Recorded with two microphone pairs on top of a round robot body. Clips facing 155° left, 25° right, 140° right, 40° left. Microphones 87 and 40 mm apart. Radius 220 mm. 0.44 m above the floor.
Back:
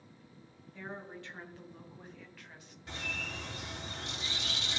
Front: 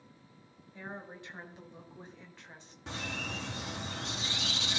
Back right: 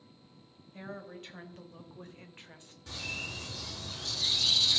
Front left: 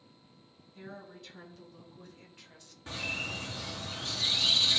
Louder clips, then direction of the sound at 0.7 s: Even, back right 3 dB; 100° right.